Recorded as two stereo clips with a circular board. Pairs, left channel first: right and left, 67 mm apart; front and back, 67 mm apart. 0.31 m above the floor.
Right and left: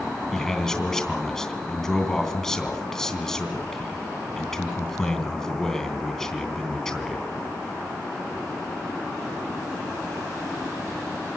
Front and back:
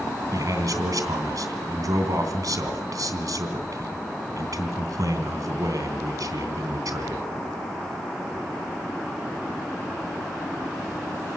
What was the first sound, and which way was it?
A man speaking, 170° right.